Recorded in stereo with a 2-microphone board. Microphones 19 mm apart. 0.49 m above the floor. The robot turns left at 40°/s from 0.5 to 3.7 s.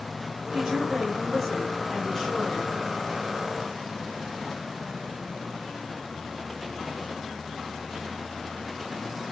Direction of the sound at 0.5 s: 140° right.